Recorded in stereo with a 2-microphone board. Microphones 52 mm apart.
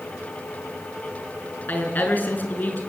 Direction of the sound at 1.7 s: 35° left (ahead or behind).